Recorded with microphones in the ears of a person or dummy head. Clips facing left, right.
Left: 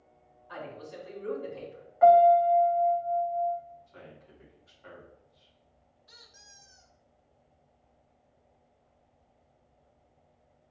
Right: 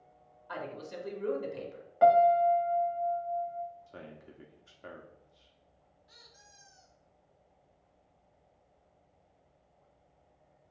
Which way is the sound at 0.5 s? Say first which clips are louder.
Right 1 dB; 65° right (ahead or behind).